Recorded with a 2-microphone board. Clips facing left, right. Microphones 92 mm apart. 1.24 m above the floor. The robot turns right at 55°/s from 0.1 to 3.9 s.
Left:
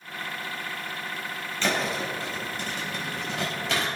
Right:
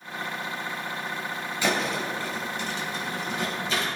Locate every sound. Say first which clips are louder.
1.6 s a thud: right 1 dB; 10° right (ahead or behind), 3 m; by 3.9 s 65° left (ahead or behind), 3 m